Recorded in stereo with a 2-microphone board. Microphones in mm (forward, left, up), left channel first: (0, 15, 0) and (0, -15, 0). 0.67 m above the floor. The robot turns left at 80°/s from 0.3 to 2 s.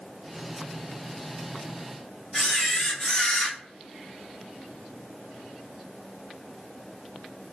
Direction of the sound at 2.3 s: 25° left (ahead or behind).